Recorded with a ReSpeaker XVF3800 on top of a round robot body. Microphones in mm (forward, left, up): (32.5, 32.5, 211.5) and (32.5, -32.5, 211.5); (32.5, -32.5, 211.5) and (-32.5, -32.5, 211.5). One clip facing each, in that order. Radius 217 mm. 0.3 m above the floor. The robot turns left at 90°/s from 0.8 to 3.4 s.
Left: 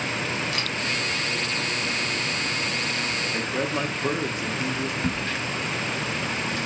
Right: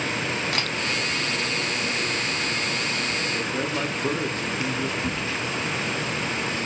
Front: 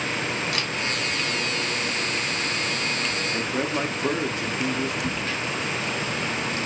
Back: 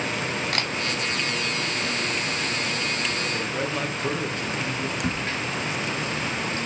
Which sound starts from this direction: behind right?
A camera shutter, at 0.5 s.